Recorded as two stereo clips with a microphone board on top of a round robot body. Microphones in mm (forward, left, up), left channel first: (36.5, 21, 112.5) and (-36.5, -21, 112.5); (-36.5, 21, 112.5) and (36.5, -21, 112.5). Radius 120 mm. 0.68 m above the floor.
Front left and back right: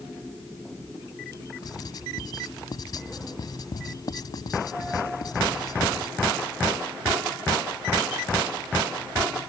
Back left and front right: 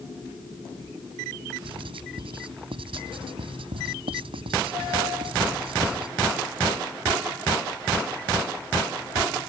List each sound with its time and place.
1.6 s writing: 15° right